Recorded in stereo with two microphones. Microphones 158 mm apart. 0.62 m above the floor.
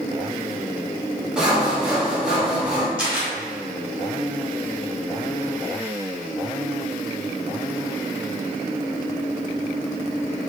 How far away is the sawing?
About 0.8 m.